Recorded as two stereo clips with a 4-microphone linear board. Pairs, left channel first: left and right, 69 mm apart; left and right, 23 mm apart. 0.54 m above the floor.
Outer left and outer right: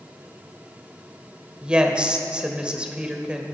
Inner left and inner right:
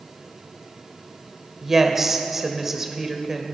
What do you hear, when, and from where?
1.6 s a woman speaking: 15° right (ahead or behind), 1.8 m